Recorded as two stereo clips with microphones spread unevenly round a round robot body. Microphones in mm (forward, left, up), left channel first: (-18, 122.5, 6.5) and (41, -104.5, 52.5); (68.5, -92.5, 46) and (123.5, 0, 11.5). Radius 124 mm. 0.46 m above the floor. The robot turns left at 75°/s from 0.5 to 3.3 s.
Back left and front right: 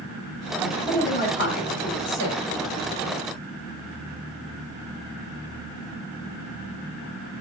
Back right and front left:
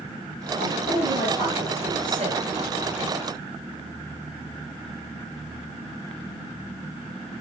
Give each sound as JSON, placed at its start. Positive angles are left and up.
{"t": 0.6, "sound": "a man speaking", "azimuth_deg": -155, "distance_m": 3.5}